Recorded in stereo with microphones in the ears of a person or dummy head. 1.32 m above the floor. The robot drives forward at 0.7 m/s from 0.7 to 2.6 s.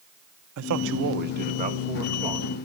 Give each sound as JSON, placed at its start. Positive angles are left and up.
{"t": 0.6, "sound": "a man speaking", "side_deg": -75, "distance_m": 0.7}